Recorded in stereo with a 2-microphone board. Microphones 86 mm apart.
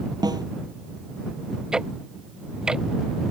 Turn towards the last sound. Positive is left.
turn(degrees=-10)  # may be behind; listen again after turning